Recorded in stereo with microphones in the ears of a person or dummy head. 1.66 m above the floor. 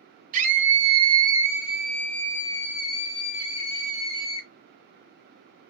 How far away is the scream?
About 1.0 m.